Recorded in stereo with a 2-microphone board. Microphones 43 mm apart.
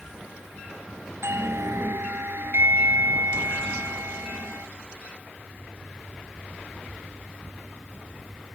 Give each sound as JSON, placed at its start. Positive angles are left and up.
{"t": 1.2, "sound": "a doorbell", "side_deg": -75}